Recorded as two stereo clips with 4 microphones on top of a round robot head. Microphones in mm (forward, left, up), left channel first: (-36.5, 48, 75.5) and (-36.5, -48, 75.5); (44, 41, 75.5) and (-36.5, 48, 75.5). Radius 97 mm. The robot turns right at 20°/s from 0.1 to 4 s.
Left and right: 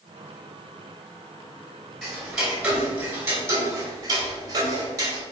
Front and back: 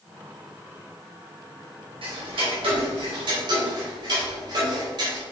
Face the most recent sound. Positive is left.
turn(degrees=-145)